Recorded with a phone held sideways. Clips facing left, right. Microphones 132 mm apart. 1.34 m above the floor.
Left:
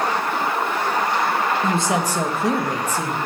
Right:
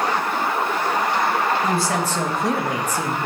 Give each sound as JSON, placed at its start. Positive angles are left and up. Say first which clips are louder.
{"t": 1.6, "sound": "a woman speaking", "louder": "left 1 dB", "side_deg": 25, "distance_m": 1.2}